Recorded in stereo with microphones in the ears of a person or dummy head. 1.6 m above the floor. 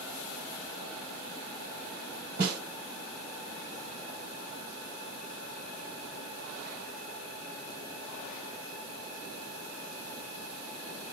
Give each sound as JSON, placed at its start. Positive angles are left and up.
{"t": 2.4, "sound": "a snare drum", "side_deg": -50, "distance_m": 2.5}